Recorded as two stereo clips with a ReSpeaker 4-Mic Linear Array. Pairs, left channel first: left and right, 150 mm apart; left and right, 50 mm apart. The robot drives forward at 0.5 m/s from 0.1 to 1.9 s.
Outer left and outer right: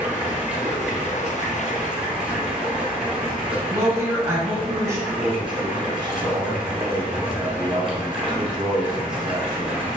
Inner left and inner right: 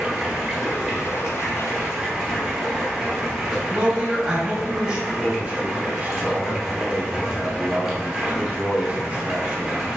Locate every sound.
0.0 s running water: 10° right (ahead or behind), 1.3 m; by 10.0 s 5° right (ahead or behind), 2 m
3.7 s a woman speaking: 20° right (ahead or behind), 1.3 m
5.1 s a man speaking: 30° right (ahead or behind), 1.0 m